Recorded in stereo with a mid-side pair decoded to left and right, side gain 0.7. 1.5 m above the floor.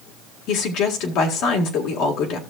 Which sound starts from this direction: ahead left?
A woman speaking, at 0.5 s.